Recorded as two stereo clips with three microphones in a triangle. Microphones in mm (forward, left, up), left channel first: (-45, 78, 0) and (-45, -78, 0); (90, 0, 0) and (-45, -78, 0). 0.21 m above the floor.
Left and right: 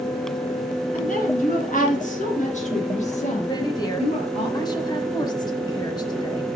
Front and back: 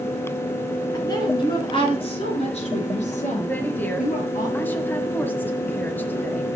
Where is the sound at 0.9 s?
90° left, 3.5 m; by 4.5 s 50° left, 5 m.